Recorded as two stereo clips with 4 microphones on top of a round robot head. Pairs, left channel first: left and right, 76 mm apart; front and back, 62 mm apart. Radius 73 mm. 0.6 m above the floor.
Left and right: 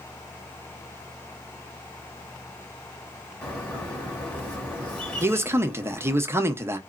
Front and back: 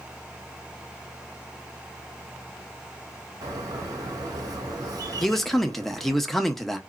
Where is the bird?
165° left, 1.6 m.